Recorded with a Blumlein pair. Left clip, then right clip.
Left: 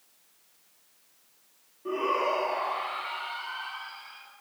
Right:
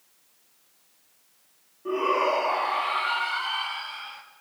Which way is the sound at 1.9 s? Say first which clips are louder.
Right 4 dB; 5° right.